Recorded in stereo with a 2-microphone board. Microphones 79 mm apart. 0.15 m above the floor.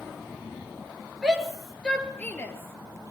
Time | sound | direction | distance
1.2 | a shout | 10° right (ahead or behind) | 3 m